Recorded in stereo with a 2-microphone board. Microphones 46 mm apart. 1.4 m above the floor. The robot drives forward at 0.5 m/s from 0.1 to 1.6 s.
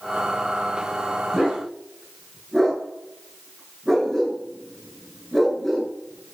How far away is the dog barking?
About 6.5 m.